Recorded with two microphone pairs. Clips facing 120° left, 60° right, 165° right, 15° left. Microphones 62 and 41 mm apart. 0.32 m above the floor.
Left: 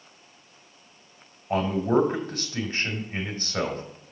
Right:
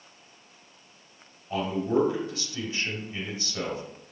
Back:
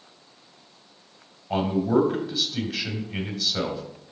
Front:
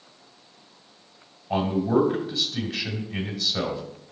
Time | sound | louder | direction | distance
1.5 | a man speaking | left 3 dB, even | 115° left | 1.8 m